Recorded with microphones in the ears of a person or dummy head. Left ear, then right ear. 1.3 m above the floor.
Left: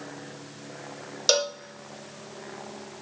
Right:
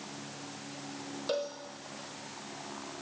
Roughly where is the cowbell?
Left.